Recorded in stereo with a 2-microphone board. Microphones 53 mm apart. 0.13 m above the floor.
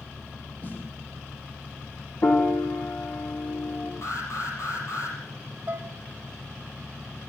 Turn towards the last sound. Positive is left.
turn(degrees=-35)  # may be behind; listen again after turning